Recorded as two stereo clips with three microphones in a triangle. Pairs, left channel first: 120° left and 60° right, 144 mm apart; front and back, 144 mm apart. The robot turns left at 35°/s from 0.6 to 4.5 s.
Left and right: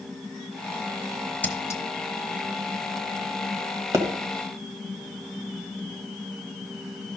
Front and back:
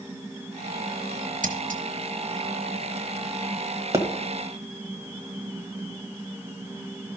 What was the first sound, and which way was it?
Scissors, 160° right.